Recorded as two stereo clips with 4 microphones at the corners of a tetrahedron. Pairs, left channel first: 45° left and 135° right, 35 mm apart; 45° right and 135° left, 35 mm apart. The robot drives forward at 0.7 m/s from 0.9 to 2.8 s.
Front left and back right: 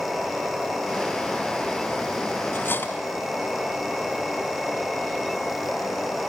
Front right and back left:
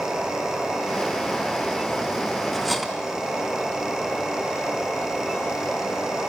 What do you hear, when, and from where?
2.5 s cutlery clinking: 40° left, 3 m; by 2.9 s 45° left, 3 m